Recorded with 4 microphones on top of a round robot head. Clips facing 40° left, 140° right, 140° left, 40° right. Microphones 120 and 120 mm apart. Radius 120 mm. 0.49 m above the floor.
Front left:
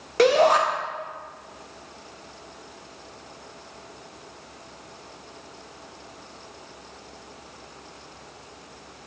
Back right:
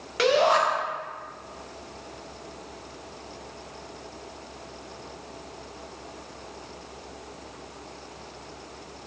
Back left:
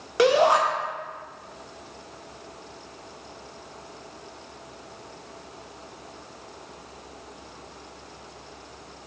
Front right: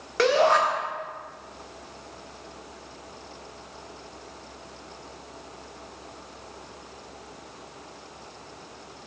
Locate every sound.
0.2 s a shout: 65° left, 1.9 m